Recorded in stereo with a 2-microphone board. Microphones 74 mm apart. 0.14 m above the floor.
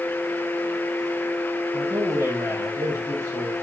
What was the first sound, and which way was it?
A man speaking, 35° right (ahead or behind).